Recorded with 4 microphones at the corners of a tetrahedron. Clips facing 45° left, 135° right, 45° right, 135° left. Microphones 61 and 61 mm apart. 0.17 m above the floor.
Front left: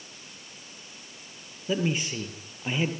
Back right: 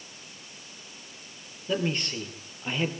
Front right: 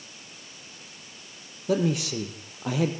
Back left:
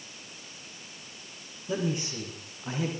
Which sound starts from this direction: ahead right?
A man speaking, at 1.7 s.